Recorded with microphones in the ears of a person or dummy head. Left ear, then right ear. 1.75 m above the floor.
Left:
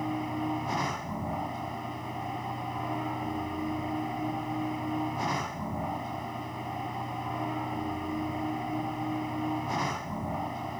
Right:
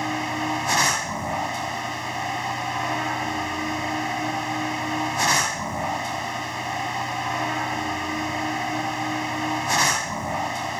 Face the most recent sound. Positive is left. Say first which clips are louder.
# right 7 dB
turn(degrees=-70)  # may be behind; listen again after turning